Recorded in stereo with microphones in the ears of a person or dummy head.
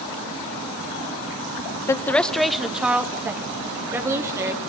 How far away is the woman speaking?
About 0.8 m.